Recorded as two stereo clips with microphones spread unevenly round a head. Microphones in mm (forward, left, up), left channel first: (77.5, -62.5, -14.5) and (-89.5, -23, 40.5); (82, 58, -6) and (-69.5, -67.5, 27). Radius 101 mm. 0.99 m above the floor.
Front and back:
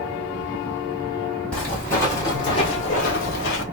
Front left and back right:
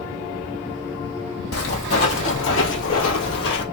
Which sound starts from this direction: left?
Footsteps, at 1.5 s.